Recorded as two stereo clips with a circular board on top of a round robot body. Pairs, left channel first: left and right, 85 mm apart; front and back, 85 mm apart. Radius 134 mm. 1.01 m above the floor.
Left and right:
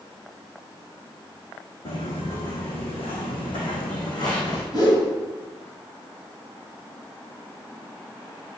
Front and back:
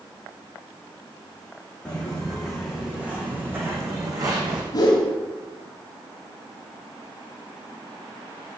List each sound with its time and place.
1.9 s footsteps: 80° left, 3.5 m; by 4.6 s 140° left, 3 m
4.7 s a whoosh: 45° left, 2.5 m